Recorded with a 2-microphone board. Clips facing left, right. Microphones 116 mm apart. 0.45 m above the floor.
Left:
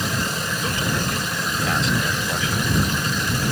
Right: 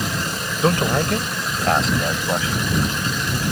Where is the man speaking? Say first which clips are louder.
Right 9 dB; 60° right (ahead or behind); by 2.8 s 35° right (ahead or behind).